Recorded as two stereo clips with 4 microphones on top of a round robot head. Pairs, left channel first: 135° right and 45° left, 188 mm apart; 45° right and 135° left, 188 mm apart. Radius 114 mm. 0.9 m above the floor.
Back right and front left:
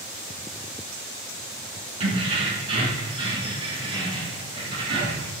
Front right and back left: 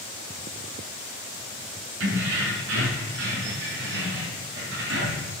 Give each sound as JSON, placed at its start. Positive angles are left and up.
{"t": 2.0, "sound": "keys jangling", "azimuth_deg": 105, "distance_m": 7.5}